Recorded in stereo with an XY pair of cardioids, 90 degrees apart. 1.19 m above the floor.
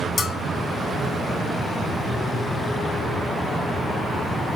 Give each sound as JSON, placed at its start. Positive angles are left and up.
{"t": 0.2, "sound": "a bell", "azimuth_deg": 60, "distance_m": 1.1}